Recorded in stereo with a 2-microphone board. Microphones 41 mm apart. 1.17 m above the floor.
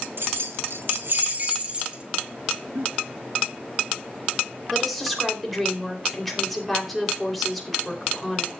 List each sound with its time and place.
0.2 s keys jangling: 65° right (ahead or behind), 0.9 m; by 2.0 s 25° right (ahead or behind), 1.8 m
2.8 s a giggle: 90° right, 6 m
4.7 s a woman speaking: centre (ahead or behind), 3 m